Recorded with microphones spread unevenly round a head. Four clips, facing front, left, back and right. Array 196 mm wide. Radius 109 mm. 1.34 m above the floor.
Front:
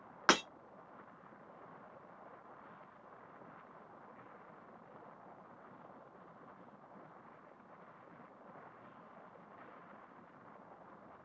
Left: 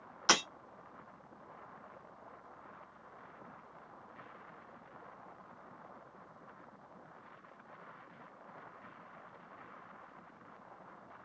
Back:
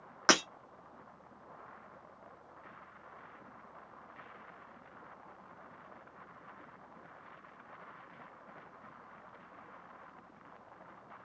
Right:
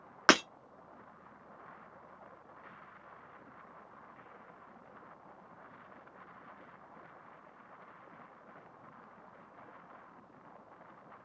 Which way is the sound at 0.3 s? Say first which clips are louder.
Right 6 dB, back 2 dB; 95° right.